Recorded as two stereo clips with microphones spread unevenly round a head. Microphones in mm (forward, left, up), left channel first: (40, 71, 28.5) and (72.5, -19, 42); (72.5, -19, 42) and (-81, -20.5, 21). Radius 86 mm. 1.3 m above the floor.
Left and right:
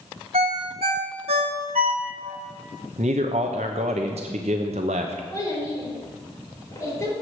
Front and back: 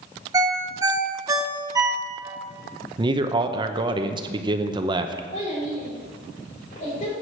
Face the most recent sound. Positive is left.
turn(degrees=50)